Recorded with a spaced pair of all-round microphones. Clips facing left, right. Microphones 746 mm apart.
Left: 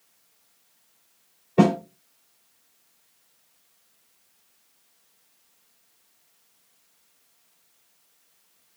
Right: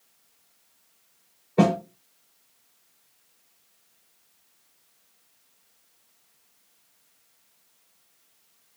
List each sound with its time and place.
1.6 s a snare drum: 55° left (ahead or behind), 3 m